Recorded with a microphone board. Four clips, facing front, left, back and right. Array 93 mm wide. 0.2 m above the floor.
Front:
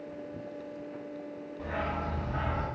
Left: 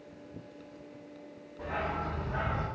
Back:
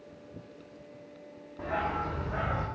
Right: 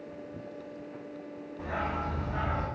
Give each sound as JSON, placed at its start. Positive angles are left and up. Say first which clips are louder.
{"t": 1.6, "sound": "a dog barking", "louder": "right 1 dB, back 3 dB", "azimuth_deg": -160, "distance_m": 2.5}